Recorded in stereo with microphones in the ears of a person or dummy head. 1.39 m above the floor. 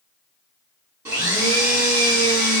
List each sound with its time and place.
1.1 s a blender: 15° right (ahead or behind), 1.7 m